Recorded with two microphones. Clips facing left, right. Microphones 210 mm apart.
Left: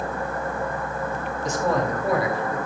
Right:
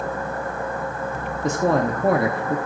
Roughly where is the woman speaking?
Right.